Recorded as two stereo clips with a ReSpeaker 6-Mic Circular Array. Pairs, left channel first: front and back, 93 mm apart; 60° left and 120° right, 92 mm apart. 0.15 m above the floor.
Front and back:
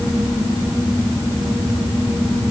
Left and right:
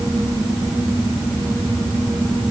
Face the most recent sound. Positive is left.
No sound to turn to.